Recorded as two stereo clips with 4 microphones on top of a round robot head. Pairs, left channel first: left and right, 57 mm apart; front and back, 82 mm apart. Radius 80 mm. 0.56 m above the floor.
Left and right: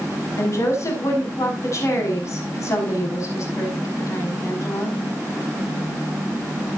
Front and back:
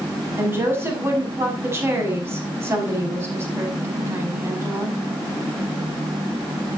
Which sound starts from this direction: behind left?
A woman speaking, at 0.4 s.